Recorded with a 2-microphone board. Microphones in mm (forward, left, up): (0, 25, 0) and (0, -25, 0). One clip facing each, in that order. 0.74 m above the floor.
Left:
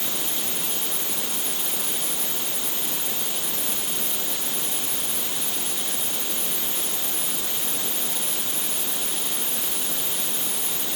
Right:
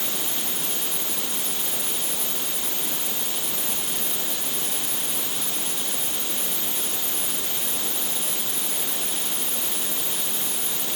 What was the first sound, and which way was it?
Only background noise.